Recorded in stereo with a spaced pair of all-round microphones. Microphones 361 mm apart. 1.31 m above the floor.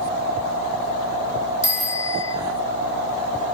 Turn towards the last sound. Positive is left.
turn(degrees=-60)  # may be behind; listen again after turning